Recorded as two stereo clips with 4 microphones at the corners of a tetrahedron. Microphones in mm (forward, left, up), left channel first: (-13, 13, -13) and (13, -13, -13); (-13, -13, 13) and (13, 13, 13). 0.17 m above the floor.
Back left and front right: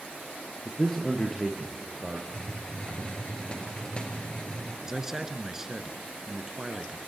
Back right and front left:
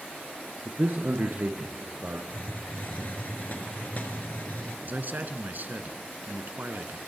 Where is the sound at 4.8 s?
30° left, 2.0 m.